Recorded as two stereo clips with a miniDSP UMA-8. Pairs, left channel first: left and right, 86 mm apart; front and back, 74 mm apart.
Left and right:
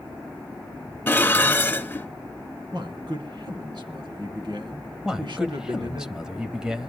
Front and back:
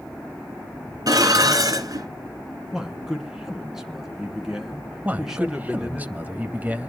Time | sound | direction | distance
1.1 | dishes clattering | 155° left | 1.8 m
2.7 | a man speaking | 95° right | 3 m
5.0 | a man speaking | 160° right | 0.9 m